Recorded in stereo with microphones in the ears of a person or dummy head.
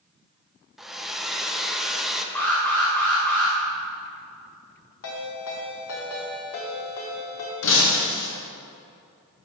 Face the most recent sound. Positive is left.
turn(degrees=65)  # may be behind; listen again after turning